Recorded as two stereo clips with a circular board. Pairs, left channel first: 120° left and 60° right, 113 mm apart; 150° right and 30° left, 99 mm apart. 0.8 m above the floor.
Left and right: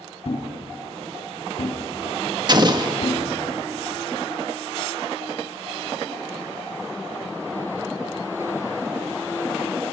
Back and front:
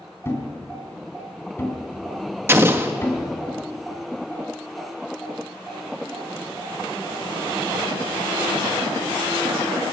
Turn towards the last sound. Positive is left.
turn(degrees=-25)